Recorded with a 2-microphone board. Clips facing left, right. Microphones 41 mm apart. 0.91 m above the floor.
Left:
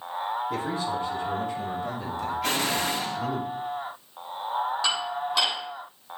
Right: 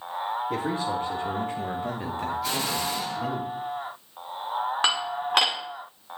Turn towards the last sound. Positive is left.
turn(degrees=-60)  # may be behind; listen again after turning